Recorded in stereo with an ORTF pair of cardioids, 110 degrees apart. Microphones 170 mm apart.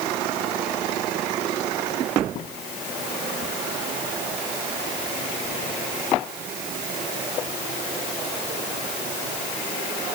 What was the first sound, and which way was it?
Only background noise.